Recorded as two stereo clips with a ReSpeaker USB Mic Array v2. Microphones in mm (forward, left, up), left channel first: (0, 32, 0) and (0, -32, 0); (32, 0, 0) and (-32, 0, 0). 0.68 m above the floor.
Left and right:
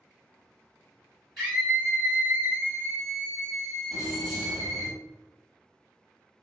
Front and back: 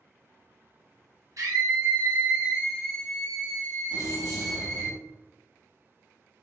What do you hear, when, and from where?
1.4 s a scream: 175° right, 0.8 m; by 4.9 s 40° right, 1.5 m
3.9 s keys jangling: 15° right, 1.5 m